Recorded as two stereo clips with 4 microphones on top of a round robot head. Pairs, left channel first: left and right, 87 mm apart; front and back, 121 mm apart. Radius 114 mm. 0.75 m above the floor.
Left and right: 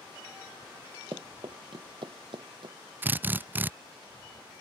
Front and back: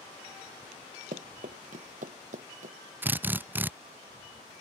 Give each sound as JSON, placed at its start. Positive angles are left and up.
{"t": 1.1, "sound": "running footsteps", "azimuth_deg": -150}
{"t": 3.0, "sound": "a drill", "azimuth_deg": -125}